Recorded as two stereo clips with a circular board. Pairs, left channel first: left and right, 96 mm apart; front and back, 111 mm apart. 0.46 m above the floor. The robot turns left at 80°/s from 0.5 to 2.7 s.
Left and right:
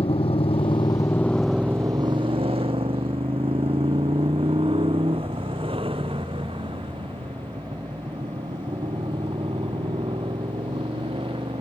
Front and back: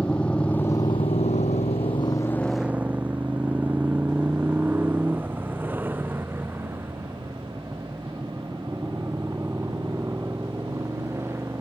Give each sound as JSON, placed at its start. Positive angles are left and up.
{"t": 0.0, "sound": "a motorcycle", "azimuth_deg": 80}